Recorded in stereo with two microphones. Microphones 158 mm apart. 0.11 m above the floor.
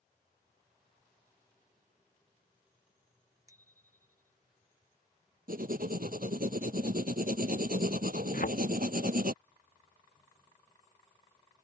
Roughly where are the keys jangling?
No keys jangling in this recording.